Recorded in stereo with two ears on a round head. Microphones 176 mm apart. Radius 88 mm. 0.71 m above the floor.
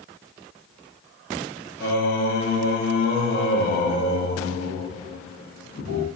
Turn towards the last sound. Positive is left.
turn(degrees=55)  # may be behind; listen again after turning